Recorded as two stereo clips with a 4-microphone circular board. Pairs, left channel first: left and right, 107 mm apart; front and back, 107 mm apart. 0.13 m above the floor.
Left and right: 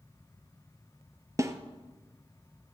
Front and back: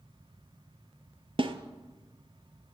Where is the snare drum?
150° right, 0.8 m.